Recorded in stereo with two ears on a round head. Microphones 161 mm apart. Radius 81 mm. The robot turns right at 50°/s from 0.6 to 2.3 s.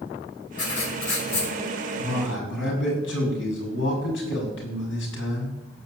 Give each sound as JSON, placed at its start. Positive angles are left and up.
{"t": 0.6, "sound": "writing", "azimuth_deg": 75, "distance_m": 5.5}
{"t": 2.0, "sound": "a man speaking", "side_deg": 60, "distance_m": 6.5}